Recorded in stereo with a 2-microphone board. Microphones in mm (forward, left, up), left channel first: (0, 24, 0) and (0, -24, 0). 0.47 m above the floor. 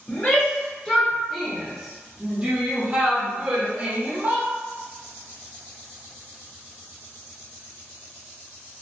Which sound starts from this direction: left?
A shout, at 0.1 s.